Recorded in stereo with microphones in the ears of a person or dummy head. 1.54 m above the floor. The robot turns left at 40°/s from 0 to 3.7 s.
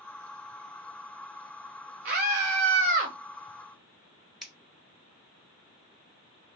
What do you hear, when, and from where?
2.0 s a scream: 75° right, 0.7 m; by 3.1 s 120° right, 0.7 m
4.4 s scissors: centre (ahead or behind), 0.9 m